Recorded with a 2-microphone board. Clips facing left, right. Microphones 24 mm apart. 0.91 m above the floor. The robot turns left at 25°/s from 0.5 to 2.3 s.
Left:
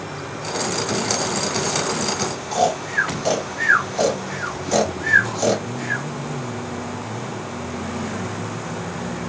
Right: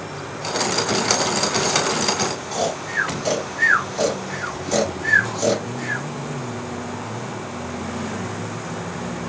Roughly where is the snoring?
Centre.